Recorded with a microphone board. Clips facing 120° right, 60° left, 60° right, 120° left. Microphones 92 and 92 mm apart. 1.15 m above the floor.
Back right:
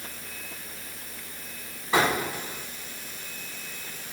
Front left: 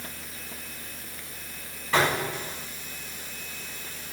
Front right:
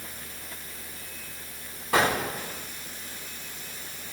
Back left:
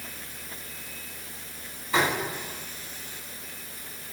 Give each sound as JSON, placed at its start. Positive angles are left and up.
{"t": 1.9, "sound": "an explosion", "azimuth_deg": -45, "distance_m": 5.5}